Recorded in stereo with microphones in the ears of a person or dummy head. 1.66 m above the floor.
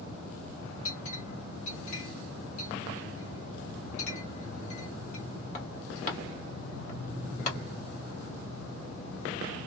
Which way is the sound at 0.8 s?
45° left (ahead or behind).